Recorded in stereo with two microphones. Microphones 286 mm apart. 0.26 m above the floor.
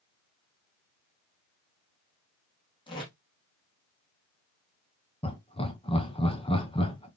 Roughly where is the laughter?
Centre.